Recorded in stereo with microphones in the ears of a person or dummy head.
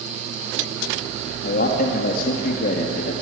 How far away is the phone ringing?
I don't hear a phone ringing.